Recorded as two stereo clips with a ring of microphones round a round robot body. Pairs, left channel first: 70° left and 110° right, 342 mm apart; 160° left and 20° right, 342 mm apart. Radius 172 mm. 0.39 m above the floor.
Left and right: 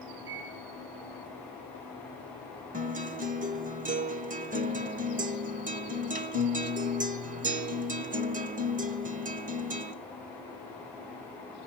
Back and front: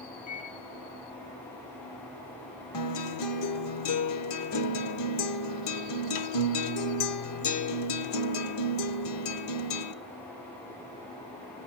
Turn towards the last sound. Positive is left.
turn(degrees=-175)